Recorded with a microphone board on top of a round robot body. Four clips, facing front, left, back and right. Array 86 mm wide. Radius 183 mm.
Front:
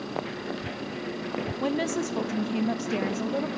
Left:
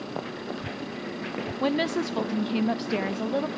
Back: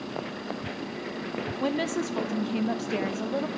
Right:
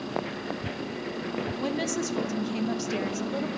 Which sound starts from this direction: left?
A woman speaking, at 1.6 s.